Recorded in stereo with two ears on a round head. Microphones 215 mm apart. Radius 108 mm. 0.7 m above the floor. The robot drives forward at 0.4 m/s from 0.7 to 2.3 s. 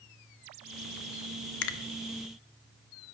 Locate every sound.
1.6 s a finger snap: 50° left (ahead or behind), 0.6 m